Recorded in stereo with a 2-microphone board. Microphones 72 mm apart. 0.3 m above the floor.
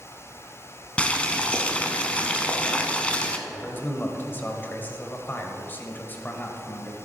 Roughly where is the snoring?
I don't hear snoring.